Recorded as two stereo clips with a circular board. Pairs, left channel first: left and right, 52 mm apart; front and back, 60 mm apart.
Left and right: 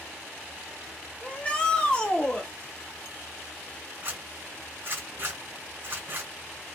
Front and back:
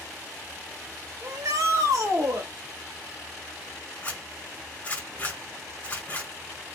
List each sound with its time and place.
1.2 s a shout: 160° left, 1.1 m
4.0 s a zipper: 55° right, 1.5 m